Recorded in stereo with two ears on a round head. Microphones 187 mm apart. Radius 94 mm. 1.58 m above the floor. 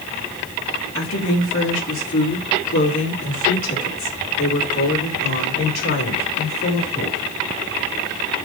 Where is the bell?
No bell in this recording.